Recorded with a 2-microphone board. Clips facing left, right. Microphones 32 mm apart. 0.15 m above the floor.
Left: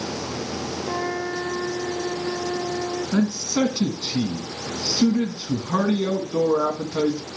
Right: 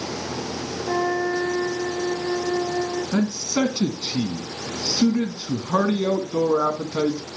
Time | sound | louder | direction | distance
0.8 | a flute | right 6 dB | 25° right (ahead or behind) | 7.5 m
3.1 | a man speaking | left 2 dB | 20° right (ahead or behind) | 1.0 m